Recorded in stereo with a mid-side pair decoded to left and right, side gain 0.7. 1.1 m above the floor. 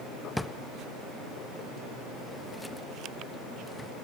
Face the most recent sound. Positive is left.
turn(degrees=5)